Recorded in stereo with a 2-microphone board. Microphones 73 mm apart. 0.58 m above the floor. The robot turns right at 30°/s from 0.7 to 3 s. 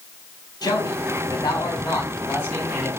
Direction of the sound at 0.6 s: 105° left.